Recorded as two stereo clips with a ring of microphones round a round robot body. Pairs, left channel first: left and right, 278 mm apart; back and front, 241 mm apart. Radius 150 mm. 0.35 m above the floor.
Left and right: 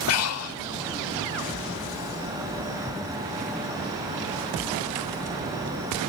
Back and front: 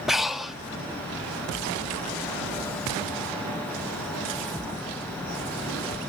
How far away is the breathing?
About 0.8 m.